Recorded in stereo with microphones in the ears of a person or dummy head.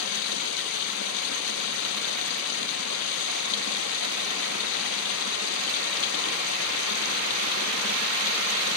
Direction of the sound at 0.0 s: 80° left.